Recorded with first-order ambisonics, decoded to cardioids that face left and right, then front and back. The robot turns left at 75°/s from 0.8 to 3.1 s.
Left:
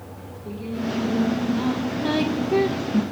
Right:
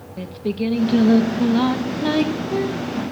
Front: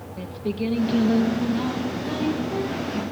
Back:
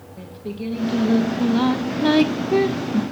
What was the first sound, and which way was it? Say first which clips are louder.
Singing: right 13 dB, front 4 dB; 70° right.